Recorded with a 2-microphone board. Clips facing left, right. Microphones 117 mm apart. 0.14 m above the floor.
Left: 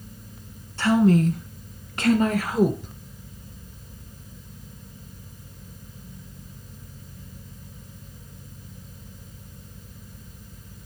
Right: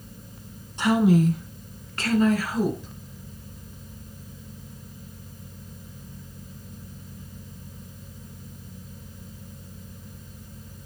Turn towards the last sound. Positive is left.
turn(degrees=45)  # may be behind; listen again after turning